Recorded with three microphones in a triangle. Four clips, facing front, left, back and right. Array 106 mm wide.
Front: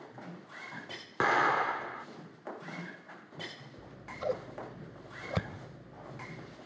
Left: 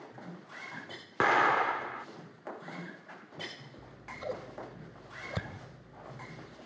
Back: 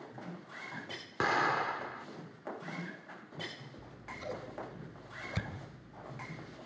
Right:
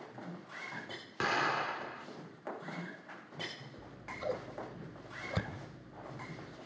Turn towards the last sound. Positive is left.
turn(degrees=0)